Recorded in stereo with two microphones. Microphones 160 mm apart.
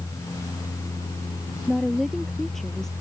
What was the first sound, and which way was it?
A woman speaking, centre (ahead or behind).